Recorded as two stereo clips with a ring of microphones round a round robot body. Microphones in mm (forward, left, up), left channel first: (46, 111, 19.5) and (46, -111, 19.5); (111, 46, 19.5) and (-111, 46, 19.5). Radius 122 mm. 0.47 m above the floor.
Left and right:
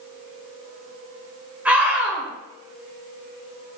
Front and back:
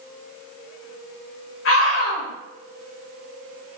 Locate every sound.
1.6 s a scream: 10° right, 1.6 m